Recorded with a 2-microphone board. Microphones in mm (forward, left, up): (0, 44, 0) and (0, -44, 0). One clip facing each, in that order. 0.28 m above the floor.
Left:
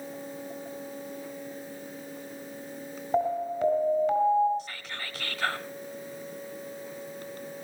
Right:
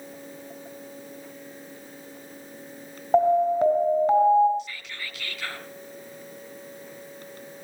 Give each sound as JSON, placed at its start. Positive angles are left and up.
{"t": 3.1, "sound": "an alarm", "side_deg": -40, "distance_m": 4.0}
{"t": 4.6, "sound": "whispering", "side_deg": 35, "distance_m": 3.0}